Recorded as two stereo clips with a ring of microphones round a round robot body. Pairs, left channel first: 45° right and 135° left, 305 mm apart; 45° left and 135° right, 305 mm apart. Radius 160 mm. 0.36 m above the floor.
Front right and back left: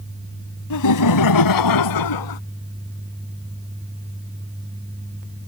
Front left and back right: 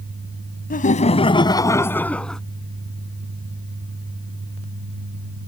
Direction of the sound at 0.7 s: 20° right.